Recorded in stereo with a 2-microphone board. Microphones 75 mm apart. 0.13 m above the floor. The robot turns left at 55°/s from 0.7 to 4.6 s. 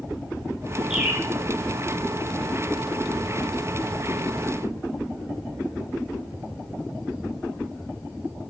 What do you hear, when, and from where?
0.9 s a bird: 10° right (ahead or behind), 2.5 m; by 1.2 s 25° right (ahead or behind), 2.5 m